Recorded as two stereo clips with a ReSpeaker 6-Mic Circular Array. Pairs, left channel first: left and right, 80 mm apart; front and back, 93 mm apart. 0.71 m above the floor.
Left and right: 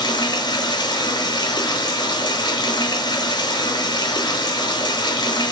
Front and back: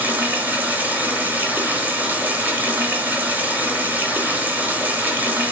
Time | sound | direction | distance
0.0 | running water | 110° left | 1.1 m